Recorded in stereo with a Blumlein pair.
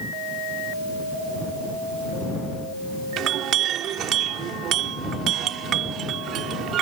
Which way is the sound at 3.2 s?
30° right.